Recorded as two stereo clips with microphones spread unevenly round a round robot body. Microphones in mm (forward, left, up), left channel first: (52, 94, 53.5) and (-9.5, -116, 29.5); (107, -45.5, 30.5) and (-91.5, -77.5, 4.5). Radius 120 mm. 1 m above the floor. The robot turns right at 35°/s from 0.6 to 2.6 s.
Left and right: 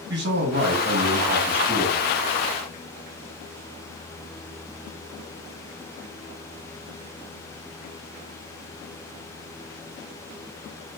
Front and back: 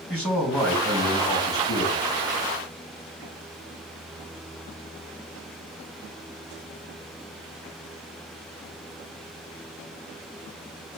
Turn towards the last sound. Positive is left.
turn(degrees=-10)